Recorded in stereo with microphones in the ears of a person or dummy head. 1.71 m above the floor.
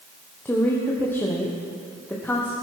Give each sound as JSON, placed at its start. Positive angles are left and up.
{"t": 0.5, "sound": "a woman speaking", "side_deg": 10, "distance_m": 1.1}